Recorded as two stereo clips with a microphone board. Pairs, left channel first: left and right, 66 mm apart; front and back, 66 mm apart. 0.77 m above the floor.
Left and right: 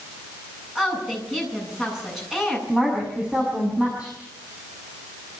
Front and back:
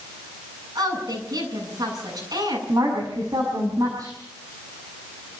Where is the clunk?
No clunk in this recording.